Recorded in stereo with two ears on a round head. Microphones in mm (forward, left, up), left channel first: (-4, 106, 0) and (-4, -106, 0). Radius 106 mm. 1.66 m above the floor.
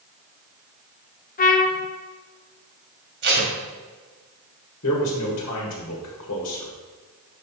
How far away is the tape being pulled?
About 1.7 m.